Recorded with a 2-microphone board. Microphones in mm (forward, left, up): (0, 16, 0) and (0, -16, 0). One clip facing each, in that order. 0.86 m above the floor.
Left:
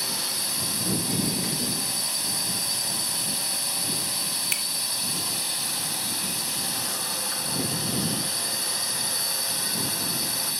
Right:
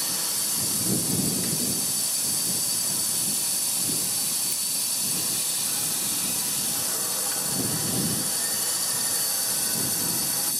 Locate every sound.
0.0 s a drone: 35° left (ahead or behind)
4.5 s a finger snap: 75° left (ahead or behind)